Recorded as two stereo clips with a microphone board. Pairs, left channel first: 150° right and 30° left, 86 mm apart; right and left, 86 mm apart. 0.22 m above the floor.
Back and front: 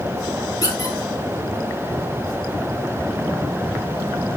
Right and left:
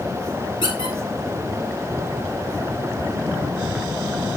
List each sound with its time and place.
0.6 s a squeak: 105° right, 2.5 m